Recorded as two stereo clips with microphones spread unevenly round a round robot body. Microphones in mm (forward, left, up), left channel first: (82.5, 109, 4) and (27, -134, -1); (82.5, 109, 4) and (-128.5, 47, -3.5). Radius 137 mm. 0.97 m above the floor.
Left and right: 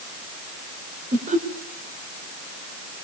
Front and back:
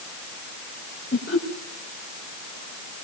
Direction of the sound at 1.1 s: 45° right.